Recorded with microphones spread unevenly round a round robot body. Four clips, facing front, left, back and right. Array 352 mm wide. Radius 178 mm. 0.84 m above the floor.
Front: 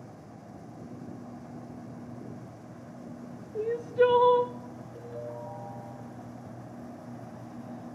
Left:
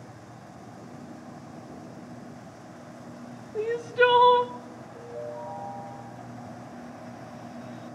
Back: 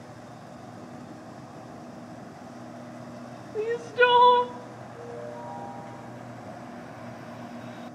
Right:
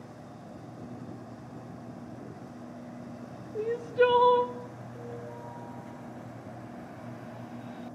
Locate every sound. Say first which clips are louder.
3.5 s crying: left 2 dB, back 1 dB; 140° left, 0.9 m
5.0 s a ringtone: left 6 dB, back 1 dB; 10° right, 5 m